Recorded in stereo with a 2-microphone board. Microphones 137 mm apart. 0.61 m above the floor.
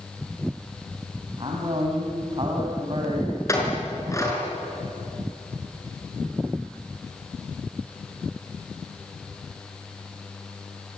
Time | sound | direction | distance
1.4 | a man speaking | 35° right (ahead or behind) | 4 m
3.5 | a clink | 20° left (ahead or behind) | 5.5 m